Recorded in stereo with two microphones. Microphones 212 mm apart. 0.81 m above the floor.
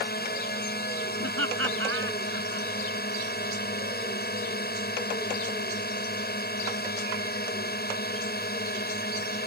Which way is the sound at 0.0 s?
45° left (ahead or behind).